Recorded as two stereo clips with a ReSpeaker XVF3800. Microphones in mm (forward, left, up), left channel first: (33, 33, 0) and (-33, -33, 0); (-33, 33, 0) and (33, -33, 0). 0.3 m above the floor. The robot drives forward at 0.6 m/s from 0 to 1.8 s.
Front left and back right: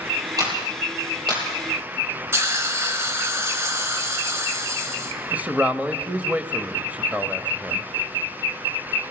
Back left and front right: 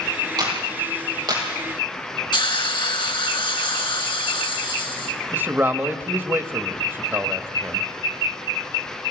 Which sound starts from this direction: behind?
A hiss, at 2.3 s.